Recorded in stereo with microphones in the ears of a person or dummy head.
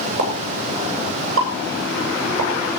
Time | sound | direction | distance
0.2 | a pop | 85° right | 7.5 m